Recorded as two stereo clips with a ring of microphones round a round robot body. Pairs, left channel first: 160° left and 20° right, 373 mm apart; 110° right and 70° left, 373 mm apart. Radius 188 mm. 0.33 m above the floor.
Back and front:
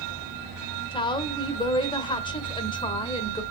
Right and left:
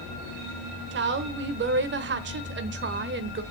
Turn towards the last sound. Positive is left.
turn(degrees=90)